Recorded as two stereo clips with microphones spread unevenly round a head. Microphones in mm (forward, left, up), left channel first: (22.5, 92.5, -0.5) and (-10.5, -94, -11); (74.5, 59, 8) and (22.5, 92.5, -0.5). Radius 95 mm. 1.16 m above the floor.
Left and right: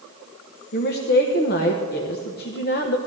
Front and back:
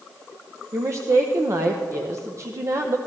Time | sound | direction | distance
0.7 | a woman speaking | 120° left | 0.8 m